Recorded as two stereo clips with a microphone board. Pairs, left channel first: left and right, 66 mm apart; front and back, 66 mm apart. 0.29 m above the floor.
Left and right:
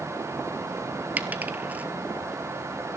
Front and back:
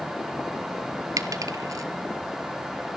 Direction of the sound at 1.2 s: 155° right.